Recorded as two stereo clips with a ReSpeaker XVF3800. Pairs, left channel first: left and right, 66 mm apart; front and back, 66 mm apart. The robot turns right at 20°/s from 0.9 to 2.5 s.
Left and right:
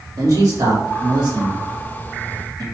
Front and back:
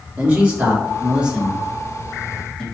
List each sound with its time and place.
0.2 s a man speaking: 115° right, 1.5 m; by 2.6 s 80° right, 1.5 m